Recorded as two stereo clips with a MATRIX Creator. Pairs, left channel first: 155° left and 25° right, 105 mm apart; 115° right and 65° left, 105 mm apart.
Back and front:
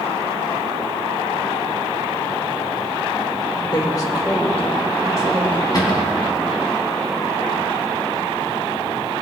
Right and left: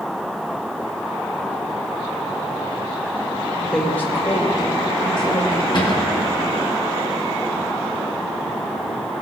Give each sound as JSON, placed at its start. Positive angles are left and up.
{"t": 3.6, "sound": "a woman speaking", "azimuth_deg": 165, "distance_m": 1.4}
{"t": 5.7, "sound": "a cupboard door", "azimuth_deg": -150, "distance_m": 2.0}